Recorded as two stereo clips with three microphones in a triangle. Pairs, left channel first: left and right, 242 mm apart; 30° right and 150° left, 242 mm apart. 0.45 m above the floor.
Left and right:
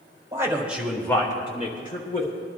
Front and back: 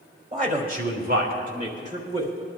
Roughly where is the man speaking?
Behind.